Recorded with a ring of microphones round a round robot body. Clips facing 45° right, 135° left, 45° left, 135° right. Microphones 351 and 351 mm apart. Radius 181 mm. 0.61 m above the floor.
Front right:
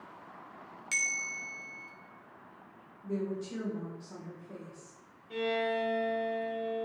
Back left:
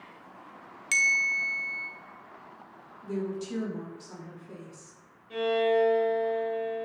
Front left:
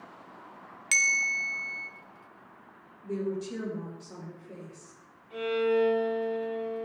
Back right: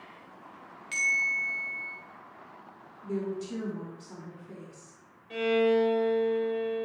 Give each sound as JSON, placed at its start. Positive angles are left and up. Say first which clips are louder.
{"t": 0.9, "sound": "a bell", "louder": "back left 4 dB, front left 1 dB", "azimuth_deg": 60, "distance_m": 1.0}
{"t": 3.0, "sound": "a woman speaking", "louder": "back left 2 dB, front left 1 dB", "azimuth_deg": 155, "distance_m": 2.5}
{"t": 5.3, "sound": "a violin", "louder": "back left 7 dB, back right 2 dB", "azimuth_deg": -135, "distance_m": 2.5}